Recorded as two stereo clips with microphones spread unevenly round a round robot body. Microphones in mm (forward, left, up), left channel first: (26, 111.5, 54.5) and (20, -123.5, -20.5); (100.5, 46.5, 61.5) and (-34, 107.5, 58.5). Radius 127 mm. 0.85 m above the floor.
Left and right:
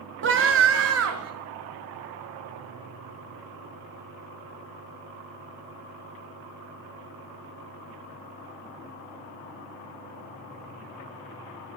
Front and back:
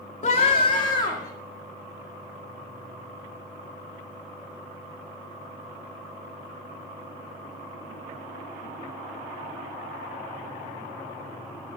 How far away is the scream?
About 1.1 m.